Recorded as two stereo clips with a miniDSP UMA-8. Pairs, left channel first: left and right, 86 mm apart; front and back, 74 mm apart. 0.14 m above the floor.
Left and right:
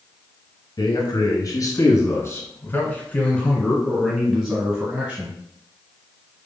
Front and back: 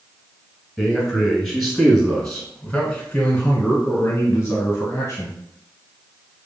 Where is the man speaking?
100° left, 1.9 m; by 5.4 s 35° right, 1.7 m.